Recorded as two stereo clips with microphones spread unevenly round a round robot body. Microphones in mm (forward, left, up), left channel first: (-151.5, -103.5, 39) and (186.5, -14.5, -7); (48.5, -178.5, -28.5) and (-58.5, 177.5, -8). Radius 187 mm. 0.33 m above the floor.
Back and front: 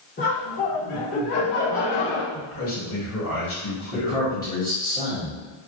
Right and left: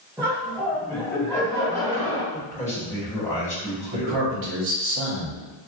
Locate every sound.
0.2 s laughter: 170° right, 1.0 m; by 2.2 s 155° right, 3 m
2.3 s a man speaking: 145° right, 1.4 m
3.9 s a man speaking: 110° left, 1.3 m